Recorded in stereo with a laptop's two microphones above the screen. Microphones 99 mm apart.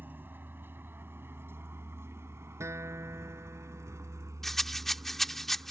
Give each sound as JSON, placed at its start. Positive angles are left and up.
{"t": 0.0, "sound": "a vehicle", "side_deg": -20}
{"t": 2.6, "sound": "a guitar", "side_deg": -30}
{"t": 4.4, "sound": "a rattle", "side_deg": 5}